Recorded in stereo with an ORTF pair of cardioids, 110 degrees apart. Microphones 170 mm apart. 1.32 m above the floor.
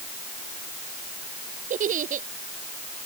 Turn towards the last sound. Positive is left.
turn(degrees=-55)